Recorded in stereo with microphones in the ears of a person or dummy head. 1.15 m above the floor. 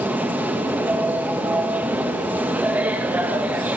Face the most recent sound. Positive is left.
turn(degrees=-10)  # may be behind; listen again after turning